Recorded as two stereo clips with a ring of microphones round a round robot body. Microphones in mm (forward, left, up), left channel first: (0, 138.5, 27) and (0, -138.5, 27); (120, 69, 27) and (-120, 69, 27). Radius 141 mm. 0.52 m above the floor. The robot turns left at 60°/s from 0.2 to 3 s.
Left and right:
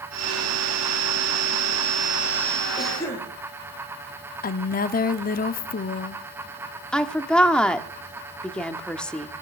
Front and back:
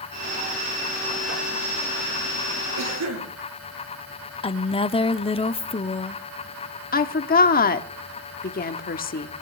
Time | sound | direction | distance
2.8 | a cough | 175° right | 8 m
4.4 | a woman speaking | 55° left | 0.8 m
6.9 | a woman speaking | 5° left | 1.1 m